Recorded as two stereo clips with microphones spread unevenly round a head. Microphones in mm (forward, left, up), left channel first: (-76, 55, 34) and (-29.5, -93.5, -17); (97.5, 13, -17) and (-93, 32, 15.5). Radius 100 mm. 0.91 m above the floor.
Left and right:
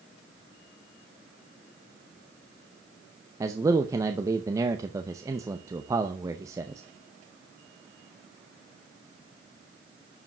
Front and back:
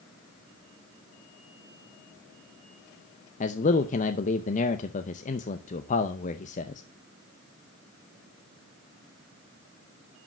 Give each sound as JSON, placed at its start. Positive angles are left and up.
{"t": 3.4, "sound": "a man speaking", "azimuth_deg": -25, "distance_m": 0.6}